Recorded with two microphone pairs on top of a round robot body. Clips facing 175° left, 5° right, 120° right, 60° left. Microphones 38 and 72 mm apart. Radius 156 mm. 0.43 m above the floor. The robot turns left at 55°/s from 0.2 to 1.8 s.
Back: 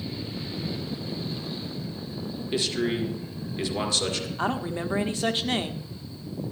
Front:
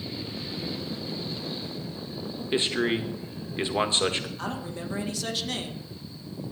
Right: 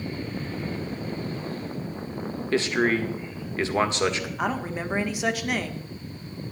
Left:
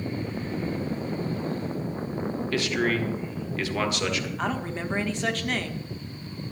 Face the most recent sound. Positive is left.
turn(degrees=160)